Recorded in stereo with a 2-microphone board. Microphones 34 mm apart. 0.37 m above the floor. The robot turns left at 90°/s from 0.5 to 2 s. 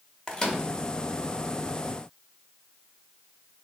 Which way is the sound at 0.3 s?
25° left (ahead or behind).